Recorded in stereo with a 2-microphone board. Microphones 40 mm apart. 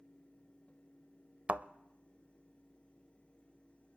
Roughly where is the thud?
Right.